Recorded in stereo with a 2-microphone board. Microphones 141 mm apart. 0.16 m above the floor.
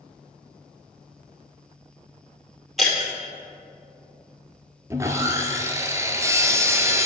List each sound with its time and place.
2.8 s breaking glass: centre (ahead or behind), 2.0 m
4.9 s sawing: 20° right (ahead or behind), 0.6 m